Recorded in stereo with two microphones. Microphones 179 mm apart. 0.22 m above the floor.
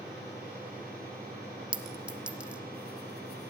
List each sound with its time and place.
1.7 s a clink: 5° right (ahead or behind), 0.5 m